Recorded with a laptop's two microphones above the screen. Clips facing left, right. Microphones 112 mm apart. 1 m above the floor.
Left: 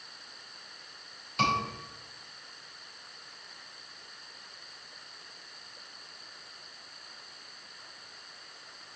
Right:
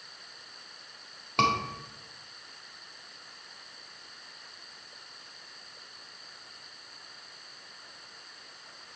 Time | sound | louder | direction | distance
1.4 | a scream | right 2 dB | 75° right (ahead or behind) | 2.5 m